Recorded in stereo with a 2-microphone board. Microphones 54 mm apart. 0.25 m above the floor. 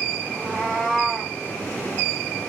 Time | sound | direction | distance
0.3 | a cat meowing | 10° right (ahead or behind) | 4 m